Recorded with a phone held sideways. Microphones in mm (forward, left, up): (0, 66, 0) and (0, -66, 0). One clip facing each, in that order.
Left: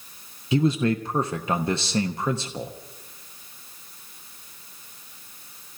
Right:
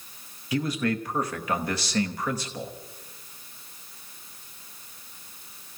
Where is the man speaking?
25° left (ahead or behind), 0.9 m.